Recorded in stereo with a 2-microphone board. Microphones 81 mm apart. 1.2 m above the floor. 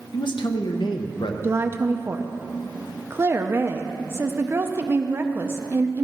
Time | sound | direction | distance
0.1 | a man speaking | 75° left (ahead or behind) | 1.0 m
1.4 | a woman speaking | 30° right (ahead or behind) | 0.6 m